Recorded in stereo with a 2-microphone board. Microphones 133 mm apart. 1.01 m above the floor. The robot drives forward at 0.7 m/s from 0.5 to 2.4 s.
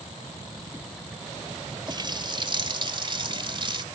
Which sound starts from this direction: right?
A running tap, at 1.9 s.